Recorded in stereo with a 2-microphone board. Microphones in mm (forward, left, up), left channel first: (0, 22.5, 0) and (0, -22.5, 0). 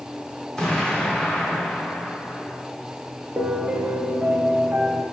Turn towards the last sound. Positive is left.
turn(degrees=-40)  # may be behind; listen again after turning